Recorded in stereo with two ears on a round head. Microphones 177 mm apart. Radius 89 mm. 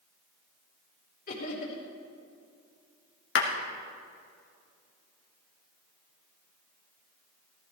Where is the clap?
65° left (ahead or behind), 1.9 m.